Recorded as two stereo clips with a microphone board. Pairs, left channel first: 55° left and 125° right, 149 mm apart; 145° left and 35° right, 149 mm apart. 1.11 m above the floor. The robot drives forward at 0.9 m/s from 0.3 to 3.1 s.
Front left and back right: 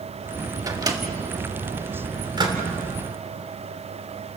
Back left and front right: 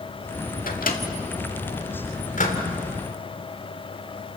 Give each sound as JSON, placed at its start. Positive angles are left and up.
{"t": 0.7, "sound": "a microwave", "azimuth_deg": 170, "distance_m": 1.6}